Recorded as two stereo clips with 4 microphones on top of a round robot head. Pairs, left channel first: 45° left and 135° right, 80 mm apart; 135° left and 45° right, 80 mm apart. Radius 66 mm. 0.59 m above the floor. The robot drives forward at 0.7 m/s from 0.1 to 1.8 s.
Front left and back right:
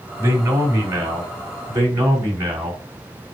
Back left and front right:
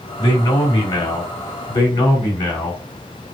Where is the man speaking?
165° left, 2.5 m; by 2.8 s 170° left, 3.5 m.